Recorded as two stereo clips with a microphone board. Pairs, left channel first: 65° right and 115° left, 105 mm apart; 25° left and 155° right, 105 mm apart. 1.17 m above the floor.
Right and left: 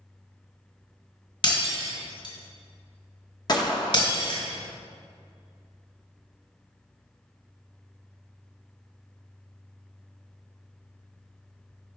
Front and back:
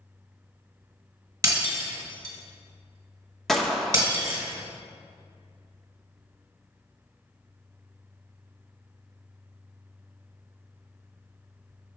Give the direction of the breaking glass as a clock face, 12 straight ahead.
3 o'clock.